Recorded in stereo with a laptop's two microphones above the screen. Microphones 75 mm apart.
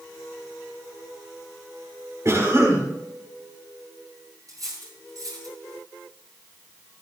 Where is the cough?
40° right (ahead or behind), 3.5 m.